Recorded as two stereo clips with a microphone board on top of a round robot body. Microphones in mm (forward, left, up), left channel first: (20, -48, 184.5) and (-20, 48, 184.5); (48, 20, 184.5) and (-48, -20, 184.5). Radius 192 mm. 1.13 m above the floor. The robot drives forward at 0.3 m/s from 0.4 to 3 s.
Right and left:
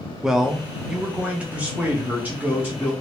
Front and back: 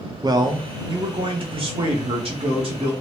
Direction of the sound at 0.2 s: 165° right.